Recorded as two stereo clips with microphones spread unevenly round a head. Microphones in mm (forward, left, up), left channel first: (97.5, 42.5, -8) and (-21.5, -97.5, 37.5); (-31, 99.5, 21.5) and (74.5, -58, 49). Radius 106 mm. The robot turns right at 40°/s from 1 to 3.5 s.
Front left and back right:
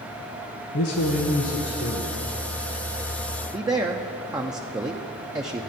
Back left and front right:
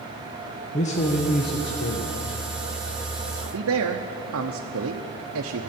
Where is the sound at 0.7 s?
65° left, 1.1 m; by 2.4 s 125° left, 1.1 m.